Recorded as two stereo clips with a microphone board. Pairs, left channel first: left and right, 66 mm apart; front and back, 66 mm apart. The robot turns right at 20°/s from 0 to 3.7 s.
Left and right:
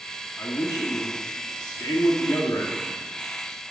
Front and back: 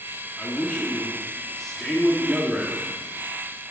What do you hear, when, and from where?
0.4 s a man speaking: 60° left, 1.3 m; by 2.8 s 110° left, 1.3 m